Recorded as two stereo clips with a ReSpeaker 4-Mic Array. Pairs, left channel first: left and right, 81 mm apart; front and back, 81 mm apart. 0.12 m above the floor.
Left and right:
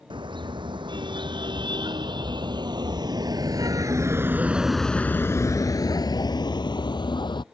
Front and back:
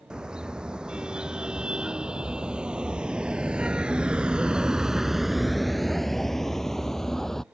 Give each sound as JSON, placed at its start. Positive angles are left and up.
{"t": 0.1, "sound": "a car horn", "azimuth_deg": -100}